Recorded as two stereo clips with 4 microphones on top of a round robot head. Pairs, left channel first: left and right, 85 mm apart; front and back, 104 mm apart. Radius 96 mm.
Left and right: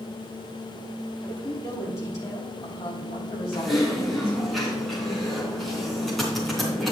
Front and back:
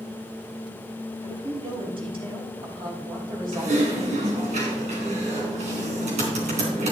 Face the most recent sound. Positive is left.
turn(degrees=180)